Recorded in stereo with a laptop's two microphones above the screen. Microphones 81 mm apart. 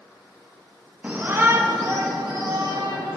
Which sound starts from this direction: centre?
A shout, at 1.0 s.